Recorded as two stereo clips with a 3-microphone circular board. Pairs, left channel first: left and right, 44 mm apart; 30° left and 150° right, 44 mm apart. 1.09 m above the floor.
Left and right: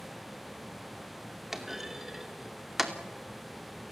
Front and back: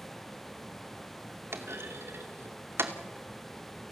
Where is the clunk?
170° right, 2.5 m.